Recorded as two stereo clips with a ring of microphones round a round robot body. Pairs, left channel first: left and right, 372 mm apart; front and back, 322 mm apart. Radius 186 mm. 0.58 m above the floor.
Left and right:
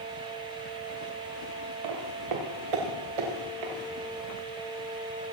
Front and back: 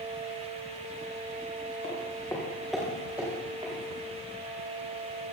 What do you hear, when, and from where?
1.8 s footsteps: 75° right, 4 m; by 3.7 s 100° right, 6 m